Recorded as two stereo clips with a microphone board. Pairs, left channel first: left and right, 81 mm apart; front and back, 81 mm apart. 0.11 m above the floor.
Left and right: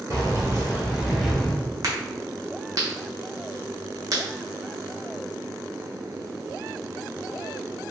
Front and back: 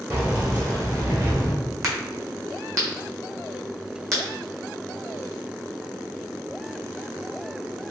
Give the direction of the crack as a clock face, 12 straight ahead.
4 o'clock.